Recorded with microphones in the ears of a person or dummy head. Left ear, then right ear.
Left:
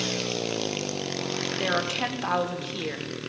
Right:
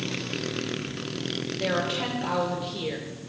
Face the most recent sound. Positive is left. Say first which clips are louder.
# even
turn(degrees=45)  # may be behind; listen again after turning